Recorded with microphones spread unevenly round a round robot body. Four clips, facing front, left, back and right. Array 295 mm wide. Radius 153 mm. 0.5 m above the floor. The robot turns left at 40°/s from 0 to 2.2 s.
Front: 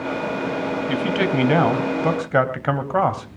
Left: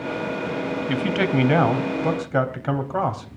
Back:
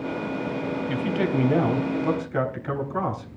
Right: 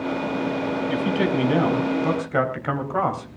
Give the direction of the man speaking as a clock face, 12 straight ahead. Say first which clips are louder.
Left 1 dB, front 3 dB; 10 o'clock.